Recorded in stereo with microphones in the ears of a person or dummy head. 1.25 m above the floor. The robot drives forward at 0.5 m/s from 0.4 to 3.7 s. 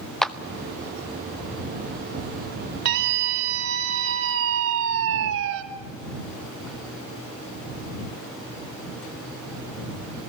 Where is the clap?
Centre (ahead or behind), 0.8 m.